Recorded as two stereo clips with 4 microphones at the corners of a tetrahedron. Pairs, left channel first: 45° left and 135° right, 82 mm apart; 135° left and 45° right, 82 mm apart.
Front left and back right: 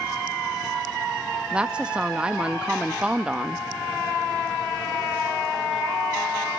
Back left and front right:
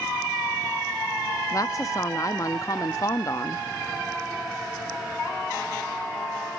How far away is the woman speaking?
About 0.7 m.